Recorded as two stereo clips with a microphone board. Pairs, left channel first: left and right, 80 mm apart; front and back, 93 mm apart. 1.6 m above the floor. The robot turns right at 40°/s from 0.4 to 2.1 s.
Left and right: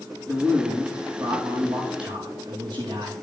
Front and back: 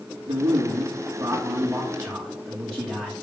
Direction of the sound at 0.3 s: 165° right.